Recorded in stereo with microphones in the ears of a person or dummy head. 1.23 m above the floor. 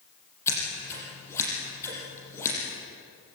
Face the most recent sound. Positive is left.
turn(degrees=10)  # may be behind; listen again after turning